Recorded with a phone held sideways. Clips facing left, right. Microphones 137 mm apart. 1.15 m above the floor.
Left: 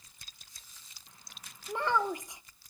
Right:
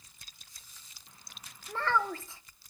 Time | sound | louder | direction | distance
1.7 | a child speaking | left 1 dB | 15° left (ahead or behind) | 0.6 m